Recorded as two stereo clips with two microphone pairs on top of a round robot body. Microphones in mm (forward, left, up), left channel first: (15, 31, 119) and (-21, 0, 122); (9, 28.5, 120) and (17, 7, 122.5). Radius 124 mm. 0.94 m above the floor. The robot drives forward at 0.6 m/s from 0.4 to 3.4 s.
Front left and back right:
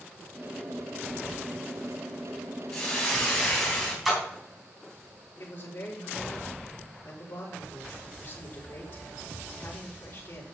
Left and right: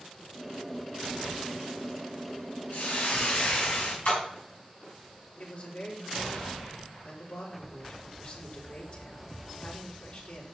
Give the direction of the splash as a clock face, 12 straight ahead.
8 o'clock.